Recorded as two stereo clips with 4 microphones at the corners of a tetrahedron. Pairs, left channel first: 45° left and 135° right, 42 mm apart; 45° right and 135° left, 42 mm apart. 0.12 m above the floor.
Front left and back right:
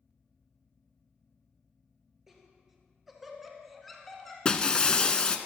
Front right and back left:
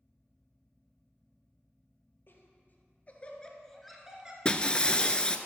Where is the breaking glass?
5° right, 0.5 m.